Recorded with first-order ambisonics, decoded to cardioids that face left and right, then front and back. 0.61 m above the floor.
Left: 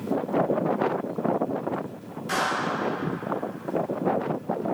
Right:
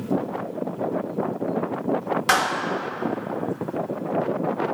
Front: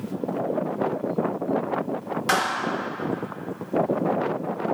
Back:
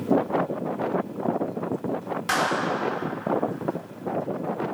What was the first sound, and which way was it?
A clap, 75° right.